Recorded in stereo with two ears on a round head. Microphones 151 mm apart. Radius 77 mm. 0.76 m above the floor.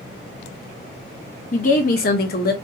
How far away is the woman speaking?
About 0.7 m.